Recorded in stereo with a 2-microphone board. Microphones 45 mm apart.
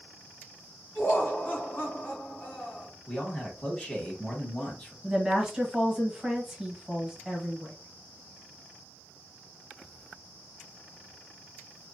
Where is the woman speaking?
10° right (ahead or behind), 1.0 m.